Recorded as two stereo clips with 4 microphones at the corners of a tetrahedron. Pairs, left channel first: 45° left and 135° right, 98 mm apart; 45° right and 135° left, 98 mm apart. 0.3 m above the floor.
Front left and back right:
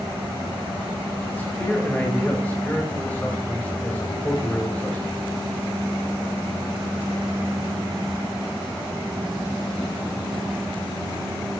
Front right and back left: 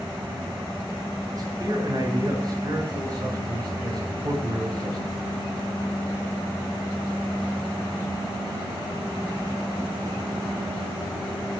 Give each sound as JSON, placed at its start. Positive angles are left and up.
{"t": 1.3, "sound": "a man speaking", "azimuth_deg": 110, "distance_m": 1.9}